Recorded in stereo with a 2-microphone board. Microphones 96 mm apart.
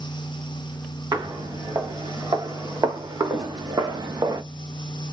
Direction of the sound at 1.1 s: 45° right (ahead or behind).